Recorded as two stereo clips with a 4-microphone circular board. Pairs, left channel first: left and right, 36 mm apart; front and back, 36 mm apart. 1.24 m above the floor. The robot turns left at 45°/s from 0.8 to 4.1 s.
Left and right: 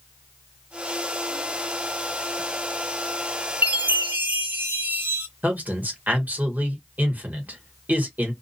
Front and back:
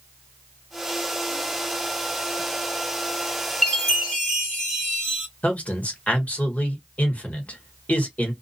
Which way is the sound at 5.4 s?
50° right.